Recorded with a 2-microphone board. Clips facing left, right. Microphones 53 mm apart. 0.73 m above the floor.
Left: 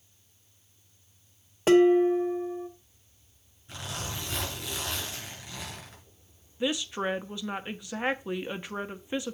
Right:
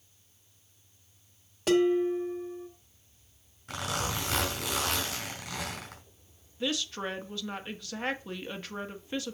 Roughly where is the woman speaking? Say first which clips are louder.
Left 3 dB; centre.